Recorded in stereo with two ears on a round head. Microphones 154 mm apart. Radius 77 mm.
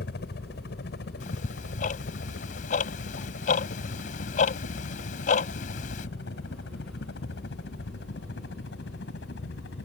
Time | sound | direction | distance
0.0 | a helicopter | 65° left (ahead or behind) | ?
1.2 | ticking | 50° left (ahead or behind) | ?